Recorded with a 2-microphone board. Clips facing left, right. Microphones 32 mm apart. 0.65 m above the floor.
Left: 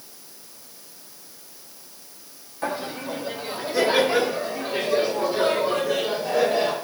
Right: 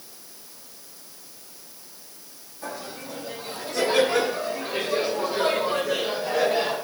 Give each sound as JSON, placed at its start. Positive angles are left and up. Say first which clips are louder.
{"t": 2.6, "sound": "laughter", "louder": "left 7 dB", "side_deg": 40, "distance_m": 0.9}